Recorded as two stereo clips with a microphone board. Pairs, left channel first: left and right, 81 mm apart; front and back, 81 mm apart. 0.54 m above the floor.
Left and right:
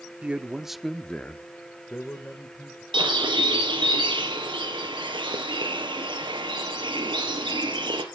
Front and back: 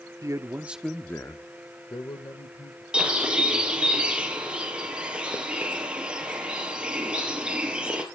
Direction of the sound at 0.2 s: 160° right.